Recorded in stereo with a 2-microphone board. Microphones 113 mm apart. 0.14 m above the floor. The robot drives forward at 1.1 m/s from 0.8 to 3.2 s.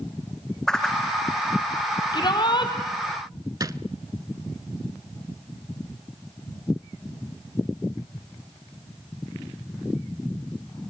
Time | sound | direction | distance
0.7 | a whoosh | 5° left (ahead or behind) | 1.7 m
2.1 | a shout | 40° left (ahead or behind) | 5 m
3.6 | a drawer | 35° right (ahead or behind) | 0.7 m